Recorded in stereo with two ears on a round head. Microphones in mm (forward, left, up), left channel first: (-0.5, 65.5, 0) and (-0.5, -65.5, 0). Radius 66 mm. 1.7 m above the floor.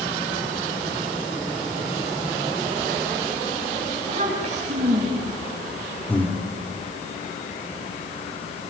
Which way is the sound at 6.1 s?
10° left (ahead or behind).